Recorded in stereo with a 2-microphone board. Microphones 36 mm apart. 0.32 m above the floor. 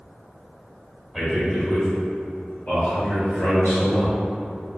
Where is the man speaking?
10° right (ahead or behind), 0.9 m; by 4.2 s 55° left (ahead or behind), 2 m.